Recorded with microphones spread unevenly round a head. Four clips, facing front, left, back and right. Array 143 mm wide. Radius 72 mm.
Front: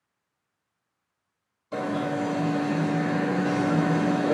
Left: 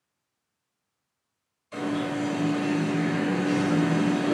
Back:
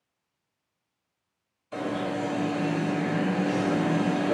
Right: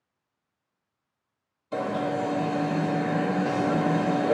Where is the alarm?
55° right, 2 m.